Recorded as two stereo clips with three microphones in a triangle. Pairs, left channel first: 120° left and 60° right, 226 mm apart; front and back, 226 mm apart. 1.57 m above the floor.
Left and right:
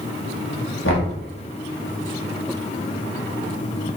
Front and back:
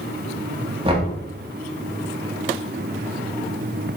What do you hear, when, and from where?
0.8 s knocking: 120° left, 1.3 m